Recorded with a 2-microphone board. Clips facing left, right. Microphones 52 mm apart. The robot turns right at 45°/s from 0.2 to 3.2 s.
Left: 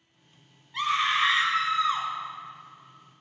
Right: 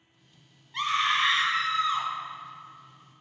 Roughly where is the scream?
Ahead.